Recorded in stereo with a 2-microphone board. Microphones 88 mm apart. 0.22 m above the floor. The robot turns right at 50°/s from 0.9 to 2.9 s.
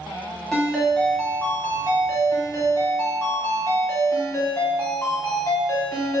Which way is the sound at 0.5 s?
15° left.